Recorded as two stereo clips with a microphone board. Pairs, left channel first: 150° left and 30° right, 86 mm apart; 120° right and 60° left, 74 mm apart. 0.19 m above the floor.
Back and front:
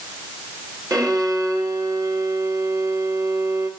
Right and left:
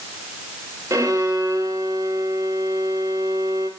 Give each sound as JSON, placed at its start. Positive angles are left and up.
{"t": 0.9, "sound": "a violin", "azimuth_deg": 15, "distance_m": 3.5}